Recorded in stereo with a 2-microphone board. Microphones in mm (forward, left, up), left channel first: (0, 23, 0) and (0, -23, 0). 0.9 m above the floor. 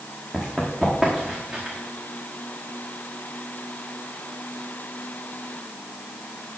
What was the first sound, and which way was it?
Running footsteps, 10° right (ahead or behind).